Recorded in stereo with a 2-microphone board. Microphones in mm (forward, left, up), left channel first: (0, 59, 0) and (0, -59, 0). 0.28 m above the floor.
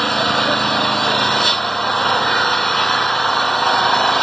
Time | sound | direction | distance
0.0 | an engine running | centre (ahead or behind) | ?